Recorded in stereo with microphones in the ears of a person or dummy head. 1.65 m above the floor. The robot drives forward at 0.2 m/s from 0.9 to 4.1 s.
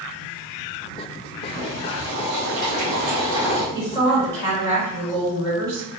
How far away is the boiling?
About 1.3 m.